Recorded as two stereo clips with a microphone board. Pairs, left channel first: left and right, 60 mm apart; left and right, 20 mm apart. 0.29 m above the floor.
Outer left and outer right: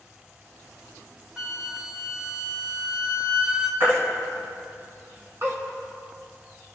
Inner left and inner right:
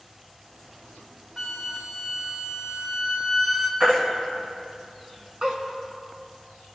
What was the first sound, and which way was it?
A flute, 15° right (ahead or behind).